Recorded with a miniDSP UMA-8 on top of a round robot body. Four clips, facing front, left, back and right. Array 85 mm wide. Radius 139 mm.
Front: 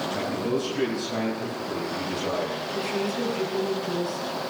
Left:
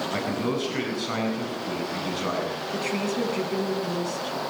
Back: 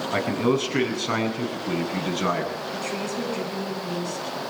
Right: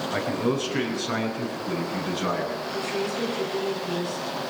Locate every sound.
0.1 s a man speaking: 175° left, 8 m; by 2.5 s straight behind, 8.5 m
2.7 s a woman speaking: 100° left, 8 m